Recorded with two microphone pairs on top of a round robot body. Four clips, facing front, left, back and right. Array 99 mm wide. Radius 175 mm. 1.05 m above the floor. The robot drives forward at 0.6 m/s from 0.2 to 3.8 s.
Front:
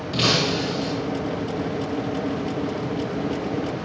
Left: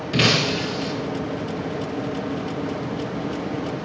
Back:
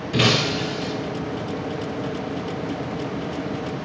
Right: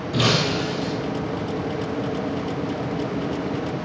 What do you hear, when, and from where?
0.1 s breaking glass: 120° left, 5 m; by 0.9 s 125° left, 5.5 m